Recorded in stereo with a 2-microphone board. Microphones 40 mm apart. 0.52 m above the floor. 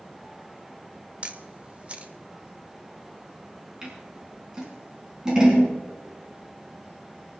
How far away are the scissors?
About 5 m.